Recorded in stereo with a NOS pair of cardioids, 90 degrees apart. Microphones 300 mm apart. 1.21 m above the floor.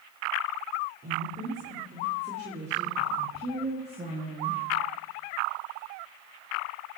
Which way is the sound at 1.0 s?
35° right.